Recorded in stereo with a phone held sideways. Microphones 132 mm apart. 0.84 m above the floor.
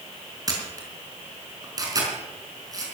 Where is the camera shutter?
30° right (ahead or behind), 4 m.